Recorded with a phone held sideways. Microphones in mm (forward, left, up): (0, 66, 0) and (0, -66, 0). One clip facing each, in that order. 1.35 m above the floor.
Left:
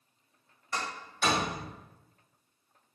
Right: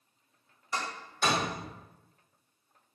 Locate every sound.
0.7 s a door slam: 10° right (ahead or behind), 1.4 m